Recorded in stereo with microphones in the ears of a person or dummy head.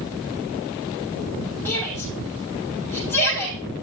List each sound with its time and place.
1.6 s a shout: 10° left (ahead or behind), 7 m